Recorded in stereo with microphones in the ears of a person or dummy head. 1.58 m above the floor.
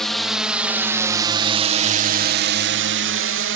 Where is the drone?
5° right (ahead or behind); by 3.6 s 55° right (ahead or behind).